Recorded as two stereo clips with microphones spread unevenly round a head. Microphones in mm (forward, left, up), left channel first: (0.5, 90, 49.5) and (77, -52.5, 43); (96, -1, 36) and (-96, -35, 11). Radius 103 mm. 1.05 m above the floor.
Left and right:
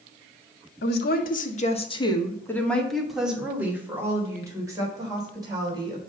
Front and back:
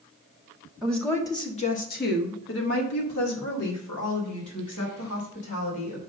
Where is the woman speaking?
100° left, 1.7 m; by 6.0 s 5° left, 5 m.